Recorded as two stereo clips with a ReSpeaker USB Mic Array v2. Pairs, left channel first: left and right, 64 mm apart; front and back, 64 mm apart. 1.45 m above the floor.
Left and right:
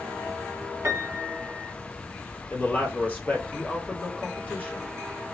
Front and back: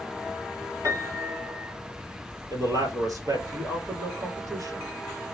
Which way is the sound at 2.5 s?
155° left.